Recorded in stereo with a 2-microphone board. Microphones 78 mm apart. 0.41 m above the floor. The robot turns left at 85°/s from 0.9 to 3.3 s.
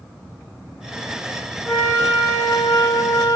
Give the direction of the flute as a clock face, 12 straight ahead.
6 o'clock.